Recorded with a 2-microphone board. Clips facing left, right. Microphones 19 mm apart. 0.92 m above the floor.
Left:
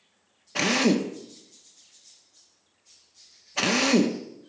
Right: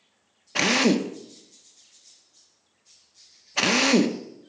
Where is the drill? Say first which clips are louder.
Right 2 dB; 10° right (ahead or behind), 0.6 m.